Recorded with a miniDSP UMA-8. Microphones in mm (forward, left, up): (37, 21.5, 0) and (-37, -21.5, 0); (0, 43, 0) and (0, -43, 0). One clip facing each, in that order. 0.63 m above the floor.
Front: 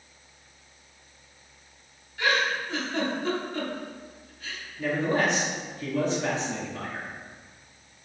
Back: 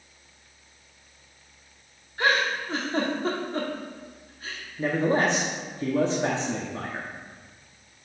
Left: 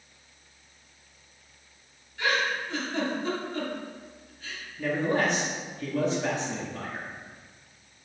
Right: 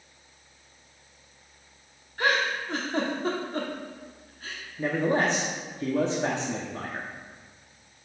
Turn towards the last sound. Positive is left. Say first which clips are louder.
# back 2 dB, right 1 dB
turn(degrees=-120)